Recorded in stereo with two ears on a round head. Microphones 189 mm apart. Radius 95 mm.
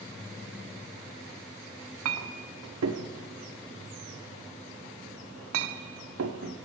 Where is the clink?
85° right, 0.7 m.